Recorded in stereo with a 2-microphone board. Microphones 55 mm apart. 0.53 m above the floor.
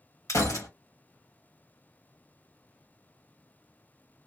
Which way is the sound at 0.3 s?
70° left (ahead or behind).